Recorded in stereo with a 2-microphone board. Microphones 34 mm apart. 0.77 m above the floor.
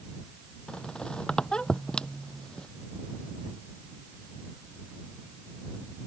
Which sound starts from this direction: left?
A squeak, at 0.7 s.